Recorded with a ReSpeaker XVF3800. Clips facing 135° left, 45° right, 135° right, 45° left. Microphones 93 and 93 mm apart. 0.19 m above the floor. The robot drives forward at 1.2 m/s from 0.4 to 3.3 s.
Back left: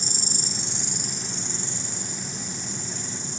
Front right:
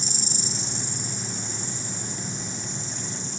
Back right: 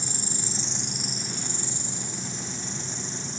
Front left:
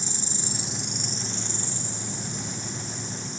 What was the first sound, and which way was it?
An insect, 110° left.